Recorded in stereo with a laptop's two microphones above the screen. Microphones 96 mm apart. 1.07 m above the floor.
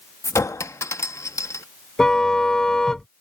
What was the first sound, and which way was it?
A clink, 35° left (ahead or behind).